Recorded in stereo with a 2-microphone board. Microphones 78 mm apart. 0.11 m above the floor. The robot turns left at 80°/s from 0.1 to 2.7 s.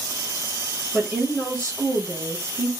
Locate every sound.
0.9 s a woman speaking: 5° left, 1.4 m; by 2.7 s 135° right, 1.4 m